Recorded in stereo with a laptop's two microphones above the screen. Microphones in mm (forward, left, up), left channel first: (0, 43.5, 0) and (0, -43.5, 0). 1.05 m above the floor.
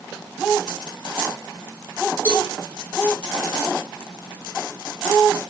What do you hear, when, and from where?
2.2 s a cowbell: 25° left (ahead or behind), 4.5 m